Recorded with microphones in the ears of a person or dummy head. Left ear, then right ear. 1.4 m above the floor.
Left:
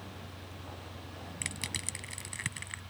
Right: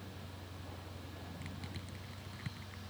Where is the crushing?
35° left (ahead or behind).